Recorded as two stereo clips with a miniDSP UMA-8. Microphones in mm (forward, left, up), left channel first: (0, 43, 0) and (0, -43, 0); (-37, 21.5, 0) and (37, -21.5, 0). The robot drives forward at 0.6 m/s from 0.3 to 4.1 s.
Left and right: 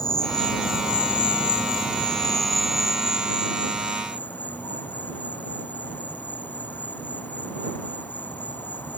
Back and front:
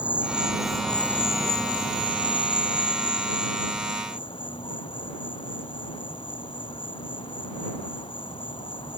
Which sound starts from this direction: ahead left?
An insect, at 0.0 s.